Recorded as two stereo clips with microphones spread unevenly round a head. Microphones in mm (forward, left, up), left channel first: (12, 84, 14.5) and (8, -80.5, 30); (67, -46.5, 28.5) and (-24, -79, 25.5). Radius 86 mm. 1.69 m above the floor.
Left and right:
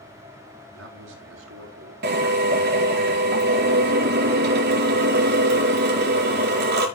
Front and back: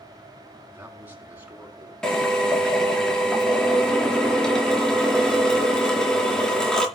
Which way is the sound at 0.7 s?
90° right.